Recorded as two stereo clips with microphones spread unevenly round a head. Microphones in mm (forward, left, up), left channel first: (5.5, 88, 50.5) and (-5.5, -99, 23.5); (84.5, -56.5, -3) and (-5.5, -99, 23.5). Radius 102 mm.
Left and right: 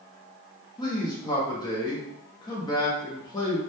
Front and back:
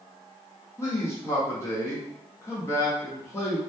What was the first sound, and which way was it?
A man speaking, 20° left.